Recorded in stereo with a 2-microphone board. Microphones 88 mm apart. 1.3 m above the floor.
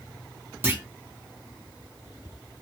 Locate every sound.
0.6 s a clunk: 20° right (ahead or behind), 0.9 m